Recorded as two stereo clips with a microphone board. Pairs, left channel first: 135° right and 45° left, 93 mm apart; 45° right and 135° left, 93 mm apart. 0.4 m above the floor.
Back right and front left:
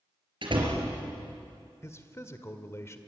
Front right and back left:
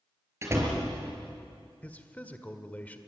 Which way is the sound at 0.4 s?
75° left.